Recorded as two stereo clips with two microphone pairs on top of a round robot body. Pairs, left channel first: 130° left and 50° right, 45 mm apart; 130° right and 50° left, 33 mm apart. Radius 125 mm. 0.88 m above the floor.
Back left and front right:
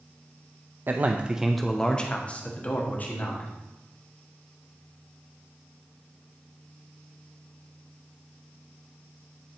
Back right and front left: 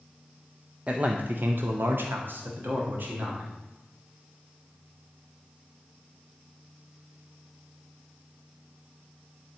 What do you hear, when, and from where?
0.9 s a man speaking: 15° right, 0.6 m; by 3.5 s 80° left, 1.9 m